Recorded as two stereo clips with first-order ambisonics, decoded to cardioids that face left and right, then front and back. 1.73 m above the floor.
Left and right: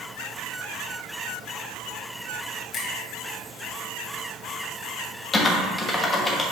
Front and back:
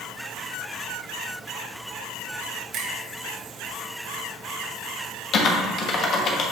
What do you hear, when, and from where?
2.7 s a finger snap: 140° left, 1.5 m
5.3 s typing on a keyboard: 20° left, 0.9 m